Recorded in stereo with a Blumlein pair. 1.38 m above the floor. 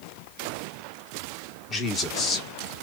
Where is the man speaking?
25° left, 1.4 m.